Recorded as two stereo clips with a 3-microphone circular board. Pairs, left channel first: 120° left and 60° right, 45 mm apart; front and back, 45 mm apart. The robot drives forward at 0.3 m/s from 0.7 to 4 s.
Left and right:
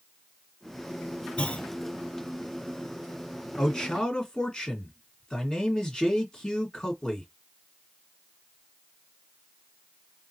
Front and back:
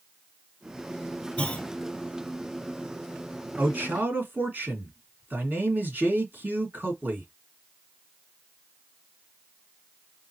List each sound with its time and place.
1.4 s a clunk: 60° left, 1.5 m
3.6 s a man speaking: 175° right, 1.9 m